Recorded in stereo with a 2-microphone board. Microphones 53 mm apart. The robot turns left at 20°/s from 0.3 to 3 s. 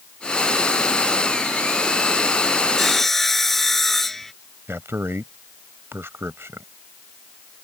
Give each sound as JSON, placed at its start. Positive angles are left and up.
{"t": 2.8, "sound": "sawing", "side_deg": 5}
{"t": 4.7, "sound": "a man speaking", "side_deg": -55}